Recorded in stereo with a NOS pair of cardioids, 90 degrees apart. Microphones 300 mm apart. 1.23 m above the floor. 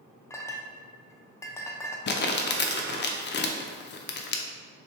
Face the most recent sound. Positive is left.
turn(degrees=40)